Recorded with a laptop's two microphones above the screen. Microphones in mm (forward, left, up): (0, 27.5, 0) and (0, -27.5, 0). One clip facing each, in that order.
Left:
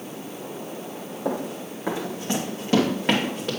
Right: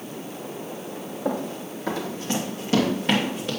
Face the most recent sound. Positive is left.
turn(degrees=40)  # may be behind; listen again after turning